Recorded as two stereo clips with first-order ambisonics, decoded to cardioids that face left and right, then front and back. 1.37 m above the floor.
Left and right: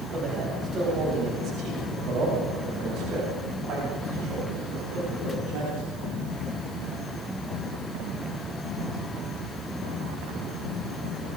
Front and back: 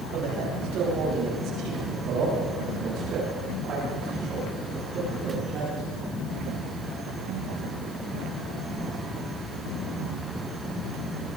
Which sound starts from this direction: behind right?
A man speaking, at 0.1 s.